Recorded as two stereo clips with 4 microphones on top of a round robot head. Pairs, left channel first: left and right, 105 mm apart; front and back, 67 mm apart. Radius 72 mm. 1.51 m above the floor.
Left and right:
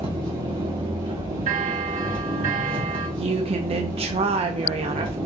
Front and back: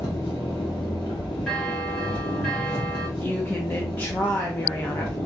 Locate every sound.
0.0 s an engine running: 50° right, 1.9 m
1.5 s a bell: 85° right, 1.3 m
3.2 s a woman speaking: 65° right, 0.7 m